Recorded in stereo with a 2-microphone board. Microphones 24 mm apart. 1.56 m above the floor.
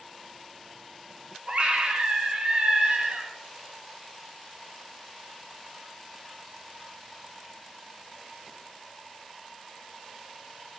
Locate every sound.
1.5 s a scream: 45° right (ahead or behind), 0.5 m